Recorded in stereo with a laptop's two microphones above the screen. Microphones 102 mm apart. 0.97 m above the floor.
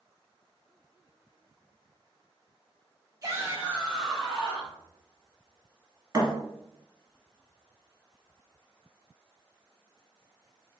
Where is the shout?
35° right (ahead or behind), 1.5 m; by 4.8 s 15° left (ahead or behind), 2.5 m.